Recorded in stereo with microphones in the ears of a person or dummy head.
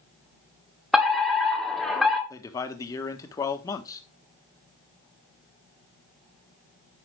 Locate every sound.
0.9 s a fire alarm: centre (ahead or behind), 1.8 m
2.3 s a man speaking: 20° left (ahead or behind), 1.4 m